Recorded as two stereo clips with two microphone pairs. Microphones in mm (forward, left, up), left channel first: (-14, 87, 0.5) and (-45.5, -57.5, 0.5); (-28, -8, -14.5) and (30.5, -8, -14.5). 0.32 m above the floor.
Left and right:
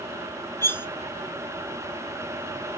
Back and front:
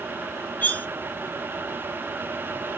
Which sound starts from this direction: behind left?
Cutlery clinking, at 0.6 s.